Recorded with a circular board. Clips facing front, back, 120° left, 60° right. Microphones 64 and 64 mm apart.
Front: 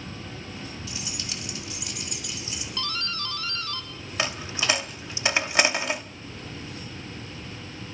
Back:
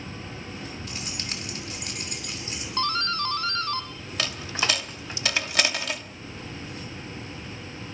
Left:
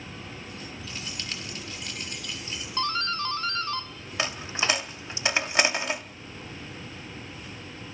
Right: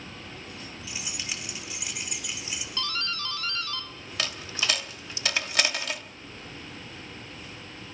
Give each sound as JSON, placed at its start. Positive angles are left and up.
{"t": 0.9, "sound": "keys jangling", "azimuth_deg": -140, "distance_m": 3.0}
{"t": 2.8, "sound": "a doorbell", "azimuth_deg": 160, "distance_m": 1.3}
{"t": 4.2, "sound": "a dropped coin", "azimuth_deg": 60, "distance_m": 0.8}